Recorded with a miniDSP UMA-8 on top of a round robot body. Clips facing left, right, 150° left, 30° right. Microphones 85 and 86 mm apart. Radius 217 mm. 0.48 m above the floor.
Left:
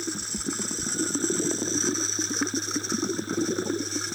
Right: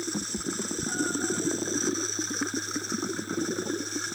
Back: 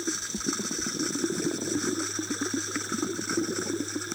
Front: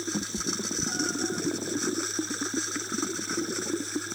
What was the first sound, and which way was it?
A cat meowing, 40° right.